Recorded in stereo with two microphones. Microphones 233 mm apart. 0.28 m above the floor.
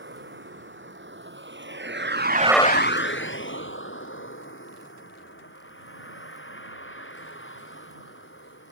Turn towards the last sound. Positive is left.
turn(degrees=65)  # may be behind; listen again after turning